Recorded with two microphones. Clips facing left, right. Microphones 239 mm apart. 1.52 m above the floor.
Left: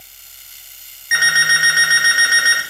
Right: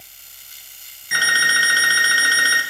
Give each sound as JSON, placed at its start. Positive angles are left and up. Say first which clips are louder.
{"t": 1.1, "sound": "an alarm clock", "louder": "left 1 dB", "side_deg": -35, "distance_m": 1.1}